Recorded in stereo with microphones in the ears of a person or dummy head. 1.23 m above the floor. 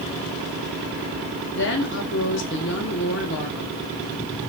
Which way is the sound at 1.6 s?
60° left (ahead or behind).